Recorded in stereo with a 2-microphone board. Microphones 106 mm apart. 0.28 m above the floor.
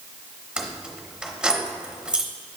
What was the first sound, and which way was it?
Keys jangling, 10° right (ahead or behind).